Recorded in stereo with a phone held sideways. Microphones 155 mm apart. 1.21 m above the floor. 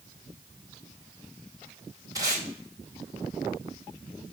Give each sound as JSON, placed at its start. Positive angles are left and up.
{"t": 2.1, "sound": "tape being pulled", "side_deg": -20, "distance_m": 2.5}